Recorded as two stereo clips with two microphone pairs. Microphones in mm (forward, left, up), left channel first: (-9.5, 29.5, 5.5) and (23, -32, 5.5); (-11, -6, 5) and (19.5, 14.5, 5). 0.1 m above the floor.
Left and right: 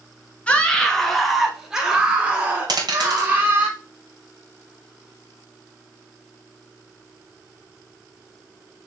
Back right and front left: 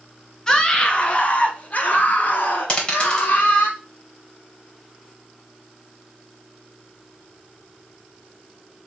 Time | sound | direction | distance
0.5 | a scream | 165° left | 1.3 m
2.7 | a dropped coin | 85° right | 3 m